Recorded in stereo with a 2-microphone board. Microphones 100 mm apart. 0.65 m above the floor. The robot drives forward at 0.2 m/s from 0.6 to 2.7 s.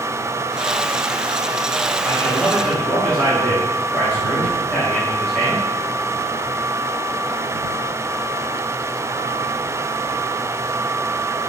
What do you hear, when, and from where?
2.0 s a man speaking: 10° left (ahead or behind), 4 m